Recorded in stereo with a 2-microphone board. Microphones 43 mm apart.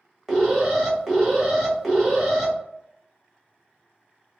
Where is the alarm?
5° right (ahead or behind), 1.1 m.